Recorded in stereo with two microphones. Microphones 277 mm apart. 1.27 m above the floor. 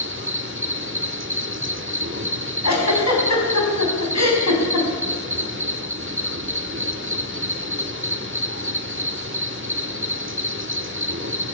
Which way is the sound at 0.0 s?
45° right (ahead or behind).